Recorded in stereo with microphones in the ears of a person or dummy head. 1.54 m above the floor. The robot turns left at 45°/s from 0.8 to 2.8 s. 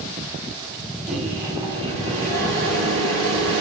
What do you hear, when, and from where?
1.1 s a microwave: straight ahead, 0.9 m; by 3.6 s 75° right, 0.9 m